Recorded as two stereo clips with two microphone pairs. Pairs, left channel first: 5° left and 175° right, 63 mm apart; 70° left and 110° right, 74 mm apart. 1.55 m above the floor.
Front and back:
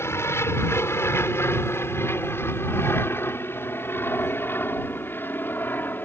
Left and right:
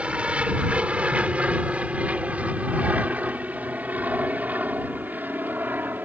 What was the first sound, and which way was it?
An aircraft, 40° right.